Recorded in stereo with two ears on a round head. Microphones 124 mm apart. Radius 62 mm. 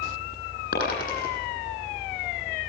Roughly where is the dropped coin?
Left.